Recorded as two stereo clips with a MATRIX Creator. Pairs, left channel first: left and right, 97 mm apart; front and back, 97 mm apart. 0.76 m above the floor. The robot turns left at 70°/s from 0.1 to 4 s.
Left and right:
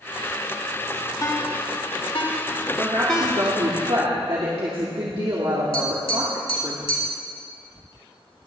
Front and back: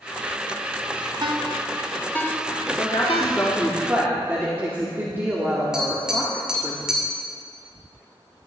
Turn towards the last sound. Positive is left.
turn(degrees=95)